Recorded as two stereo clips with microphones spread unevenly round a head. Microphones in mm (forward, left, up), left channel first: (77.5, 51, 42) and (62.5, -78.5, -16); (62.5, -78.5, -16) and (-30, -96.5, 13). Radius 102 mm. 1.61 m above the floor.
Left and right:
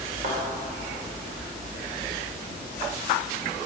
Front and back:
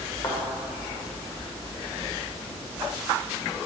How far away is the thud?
About 1.9 m.